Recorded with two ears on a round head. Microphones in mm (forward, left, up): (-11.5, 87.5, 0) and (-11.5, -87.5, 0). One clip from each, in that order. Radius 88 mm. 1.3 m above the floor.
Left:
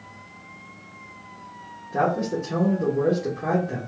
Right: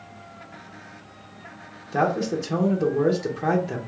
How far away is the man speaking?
About 0.8 m.